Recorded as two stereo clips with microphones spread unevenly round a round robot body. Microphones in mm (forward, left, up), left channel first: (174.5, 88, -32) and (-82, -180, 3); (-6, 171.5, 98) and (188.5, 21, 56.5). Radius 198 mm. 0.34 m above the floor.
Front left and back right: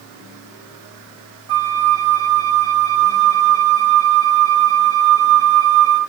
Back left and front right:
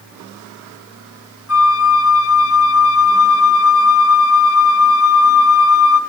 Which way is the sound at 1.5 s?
145° left.